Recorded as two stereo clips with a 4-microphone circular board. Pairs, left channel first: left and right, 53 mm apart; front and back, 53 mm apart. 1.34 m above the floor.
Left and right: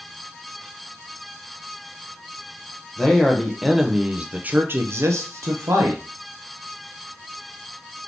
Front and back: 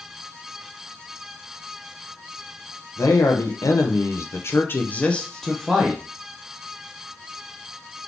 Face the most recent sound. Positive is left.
turn(degrees=-100)